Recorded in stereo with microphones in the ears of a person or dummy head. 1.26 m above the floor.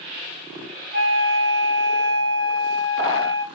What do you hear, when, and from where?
0.9 s a flute: 55° right (ahead or behind), 3 m